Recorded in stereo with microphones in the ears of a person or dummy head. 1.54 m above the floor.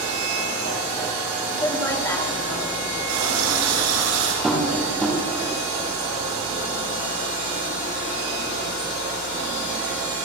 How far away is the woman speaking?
About 3 m.